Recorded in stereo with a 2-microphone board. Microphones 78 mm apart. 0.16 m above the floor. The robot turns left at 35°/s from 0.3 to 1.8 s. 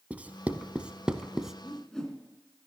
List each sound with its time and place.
0.1 s writing: 15° right (ahead or behind), 0.7 m; by 1.5 s 5° right (ahead or behind), 0.7 m
1.6 s a whoosh: 5° left (ahead or behind), 2 m